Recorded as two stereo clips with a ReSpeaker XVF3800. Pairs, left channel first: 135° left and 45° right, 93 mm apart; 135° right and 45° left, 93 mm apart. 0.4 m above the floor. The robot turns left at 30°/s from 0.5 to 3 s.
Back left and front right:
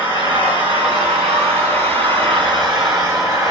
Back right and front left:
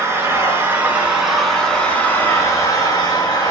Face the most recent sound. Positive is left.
turn(degrees=-90)